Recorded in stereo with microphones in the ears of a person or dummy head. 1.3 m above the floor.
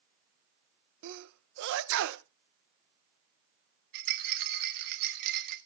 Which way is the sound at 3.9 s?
50° right (ahead or behind).